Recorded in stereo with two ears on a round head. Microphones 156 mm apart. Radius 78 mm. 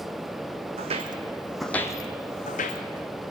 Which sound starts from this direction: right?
Footsteps, at 0.8 s.